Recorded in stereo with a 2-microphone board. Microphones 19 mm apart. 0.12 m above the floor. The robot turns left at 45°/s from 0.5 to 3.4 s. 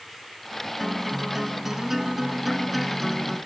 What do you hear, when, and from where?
0.8 s a guitar: 25° right (ahead or behind), 1.1 m; by 3.4 s 10° left (ahead or behind), 1.1 m